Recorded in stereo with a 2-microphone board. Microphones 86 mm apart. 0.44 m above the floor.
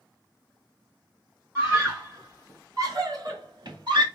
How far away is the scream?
About 3 m.